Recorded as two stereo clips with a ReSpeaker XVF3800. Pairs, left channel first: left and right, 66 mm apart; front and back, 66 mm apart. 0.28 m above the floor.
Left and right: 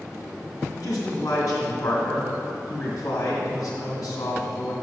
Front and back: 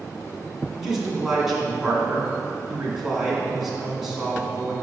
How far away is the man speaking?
About 2 m.